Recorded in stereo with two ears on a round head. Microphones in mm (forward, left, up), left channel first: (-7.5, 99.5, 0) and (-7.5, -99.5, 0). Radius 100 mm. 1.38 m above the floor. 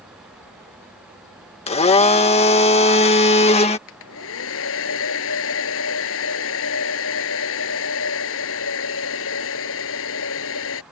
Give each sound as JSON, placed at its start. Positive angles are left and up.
{"t": 1.7, "sound": "a blender", "side_deg": 30}
{"t": 3.9, "sound": "a hair dryer", "side_deg": 70}